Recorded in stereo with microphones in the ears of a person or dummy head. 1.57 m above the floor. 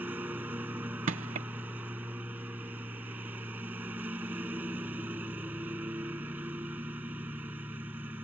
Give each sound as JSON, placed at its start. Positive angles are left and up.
{"t": 0.0, "sound": "a lawn mower", "side_deg": -10}
{"t": 1.1, "sound": "crushing", "side_deg": -45}